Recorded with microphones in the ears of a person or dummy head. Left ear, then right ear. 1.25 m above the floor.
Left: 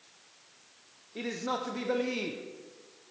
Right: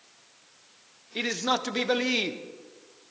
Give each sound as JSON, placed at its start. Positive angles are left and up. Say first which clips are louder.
{"t": 1.1, "sound": "a man speaking", "louder": "right 7 dB", "side_deg": -50, "distance_m": 0.8}